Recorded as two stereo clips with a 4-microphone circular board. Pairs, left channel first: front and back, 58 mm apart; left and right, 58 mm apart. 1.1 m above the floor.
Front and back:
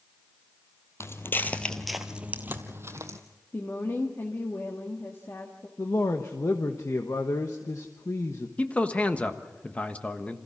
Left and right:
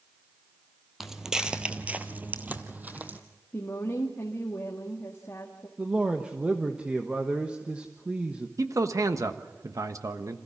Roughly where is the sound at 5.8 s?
Ahead.